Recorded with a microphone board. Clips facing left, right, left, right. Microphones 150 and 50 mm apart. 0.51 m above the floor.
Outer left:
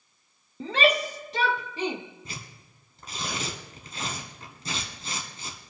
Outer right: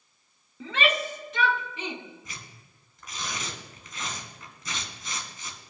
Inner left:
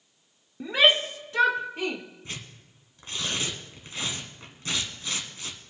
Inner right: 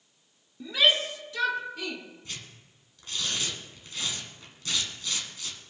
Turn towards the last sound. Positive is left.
turn(degrees=30)  # may be behind; listen again after turning